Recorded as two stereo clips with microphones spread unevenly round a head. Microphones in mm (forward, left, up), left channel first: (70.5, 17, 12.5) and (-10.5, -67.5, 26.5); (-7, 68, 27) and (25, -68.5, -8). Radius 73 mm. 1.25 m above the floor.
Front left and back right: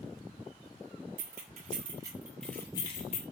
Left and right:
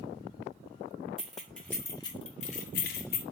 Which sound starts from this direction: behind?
Keys jangling, at 1.2 s.